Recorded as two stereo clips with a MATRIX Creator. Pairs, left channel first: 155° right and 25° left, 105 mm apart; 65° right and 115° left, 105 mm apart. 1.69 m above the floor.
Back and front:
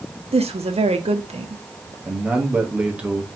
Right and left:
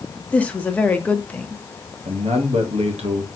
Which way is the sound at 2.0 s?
100° left.